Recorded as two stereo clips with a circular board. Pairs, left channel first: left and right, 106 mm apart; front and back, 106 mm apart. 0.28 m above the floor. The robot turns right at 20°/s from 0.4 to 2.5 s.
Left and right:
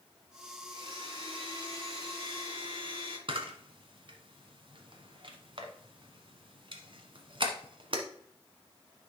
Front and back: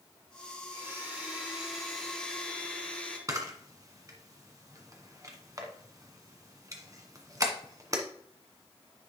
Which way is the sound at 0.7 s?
110° right.